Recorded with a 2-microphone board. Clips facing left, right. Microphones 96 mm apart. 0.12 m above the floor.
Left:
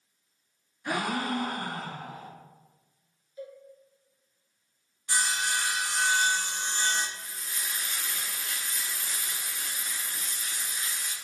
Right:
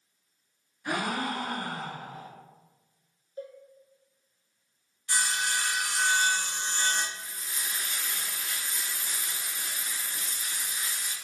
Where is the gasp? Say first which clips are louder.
Left 1 dB; 5° right (ahead or behind), 1.0 m.